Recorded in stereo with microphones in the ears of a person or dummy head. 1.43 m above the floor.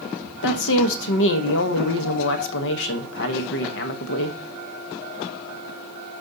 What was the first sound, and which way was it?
A woman speaking, 70° left (ahead or behind).